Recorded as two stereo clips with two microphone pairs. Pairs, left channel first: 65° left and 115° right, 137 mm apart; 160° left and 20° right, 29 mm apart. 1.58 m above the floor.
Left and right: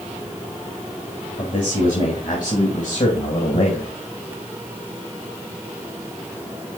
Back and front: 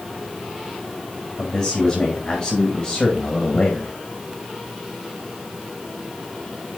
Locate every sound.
1.4 s a man speaking: 80° left, 4 m; by 3.9 s 90° left, 2 m